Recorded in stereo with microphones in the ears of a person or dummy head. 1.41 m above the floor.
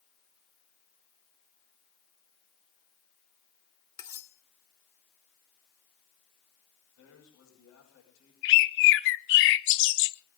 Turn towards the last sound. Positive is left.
turn(degrees=65)  # may be behind; listen again after turning